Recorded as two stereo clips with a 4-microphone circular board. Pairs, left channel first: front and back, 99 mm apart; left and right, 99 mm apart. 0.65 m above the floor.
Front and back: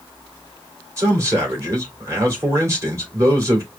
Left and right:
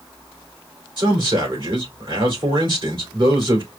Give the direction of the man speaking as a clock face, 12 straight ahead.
4 o'clock.